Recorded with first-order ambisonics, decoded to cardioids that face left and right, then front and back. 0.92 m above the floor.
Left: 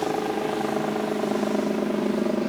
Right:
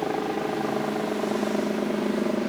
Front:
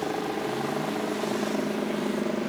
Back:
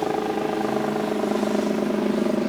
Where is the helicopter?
165° left.